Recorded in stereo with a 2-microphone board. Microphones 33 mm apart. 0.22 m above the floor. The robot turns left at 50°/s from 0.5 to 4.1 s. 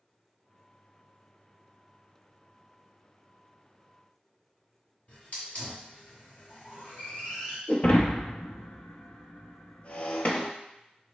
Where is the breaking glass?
50° left (ahead or behind), 0.8 m.